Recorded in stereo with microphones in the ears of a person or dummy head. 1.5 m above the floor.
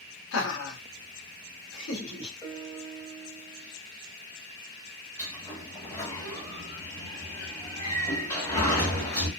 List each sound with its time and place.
0.3 s laughter: 75° left (ahead or behind), 1.1 m; by 2.3 s 70° left (ahead or behind), 1.8 m
2.4 s a piano: 15° left (ahead or behind), 0.9 m
5.2 s a sliding door: 15° left (ahead or behind), 1.2 m